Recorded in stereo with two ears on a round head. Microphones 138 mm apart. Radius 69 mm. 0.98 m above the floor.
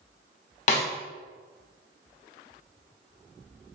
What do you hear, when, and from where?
0.7 s a snare drum: 50° left (ahead or behind), 0.8 m